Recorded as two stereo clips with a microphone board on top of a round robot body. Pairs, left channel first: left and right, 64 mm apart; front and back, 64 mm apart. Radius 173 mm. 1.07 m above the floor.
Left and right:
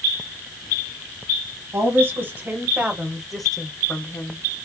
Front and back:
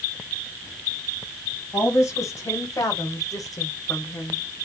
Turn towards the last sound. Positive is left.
turn(degrees=55)